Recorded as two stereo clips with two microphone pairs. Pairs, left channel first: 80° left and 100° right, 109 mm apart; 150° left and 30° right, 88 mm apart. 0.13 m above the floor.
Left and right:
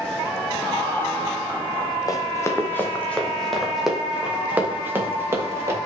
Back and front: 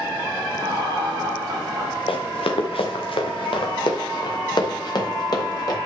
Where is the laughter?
10° left, 4 m; by 2.0 s 5° left, 3.5 m.